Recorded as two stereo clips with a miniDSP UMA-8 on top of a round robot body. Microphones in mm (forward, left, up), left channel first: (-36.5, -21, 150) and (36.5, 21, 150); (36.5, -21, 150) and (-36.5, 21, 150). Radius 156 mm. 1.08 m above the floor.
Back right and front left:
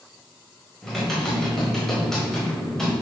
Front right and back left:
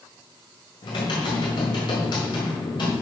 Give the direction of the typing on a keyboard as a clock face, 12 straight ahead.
2 o'clock.